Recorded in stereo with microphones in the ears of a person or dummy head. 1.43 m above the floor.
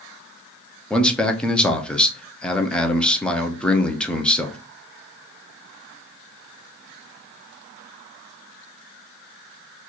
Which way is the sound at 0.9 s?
5° left (ahead or behind).